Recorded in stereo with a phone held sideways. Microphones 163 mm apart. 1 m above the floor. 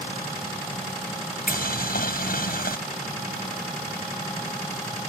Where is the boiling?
65° left (ahead or behind).